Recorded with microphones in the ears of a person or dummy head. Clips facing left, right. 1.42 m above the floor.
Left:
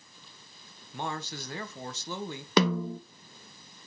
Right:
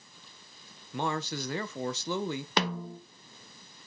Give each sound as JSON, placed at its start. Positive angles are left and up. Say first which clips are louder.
{"t": 0.9, "sound": "a man speaking", "louder": "right 4 dB", "side_deg": -65, "distance_m": 1.4}
{"t": 2.6, "sound": "a snare drum", "louder": "left 9 dB", "side_deg": 65, "distance_m": 0.7}